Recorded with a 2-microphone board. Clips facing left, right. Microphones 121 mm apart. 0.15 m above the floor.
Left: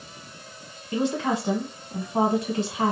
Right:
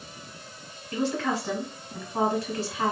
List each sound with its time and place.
0.9 s a woman speaking: 15° left (ahead or behind), 1.0 m